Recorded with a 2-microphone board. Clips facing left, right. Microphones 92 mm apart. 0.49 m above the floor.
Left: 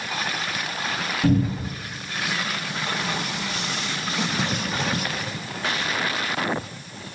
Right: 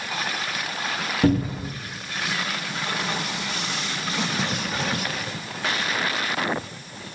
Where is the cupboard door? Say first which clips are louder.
Right 1 dB; 50° right (ahead or behind), 1.0 m.